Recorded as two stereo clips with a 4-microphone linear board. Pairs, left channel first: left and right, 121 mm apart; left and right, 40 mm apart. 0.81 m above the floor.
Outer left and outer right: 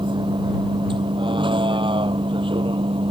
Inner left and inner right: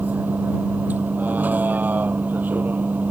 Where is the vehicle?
40° right (ahead or behind); by 3.1 s 45° right (ahead or behind).